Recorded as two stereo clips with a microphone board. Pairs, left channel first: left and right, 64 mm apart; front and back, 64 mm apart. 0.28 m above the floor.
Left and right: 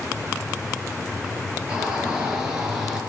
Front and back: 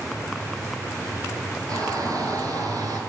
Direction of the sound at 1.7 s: 165° right.